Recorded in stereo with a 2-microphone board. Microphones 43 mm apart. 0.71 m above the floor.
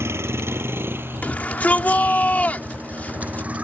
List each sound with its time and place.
0.0 s a vehicle: 80° right; by 3.6 s 30° right (ahead or behind)
1.2 s a shout: 40° left (ahead or behind)